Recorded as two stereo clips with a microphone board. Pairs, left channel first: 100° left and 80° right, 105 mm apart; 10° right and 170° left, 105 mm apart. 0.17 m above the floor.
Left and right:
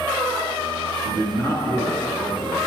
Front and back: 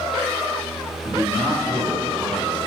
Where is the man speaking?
120° left, 1.3 m.